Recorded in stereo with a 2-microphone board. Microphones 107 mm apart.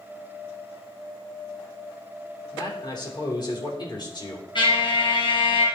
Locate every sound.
2.5 s a man speaking: 45° left (ahead or behind), 3 m
4.5 s a trumpet: 55° left (ahead or behind), 3 m